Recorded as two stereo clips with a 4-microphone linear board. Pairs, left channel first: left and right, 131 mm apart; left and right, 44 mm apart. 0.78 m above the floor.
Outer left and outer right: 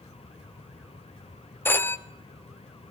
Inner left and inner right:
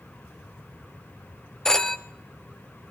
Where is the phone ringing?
15° left (ahead or behind), 1.0 m.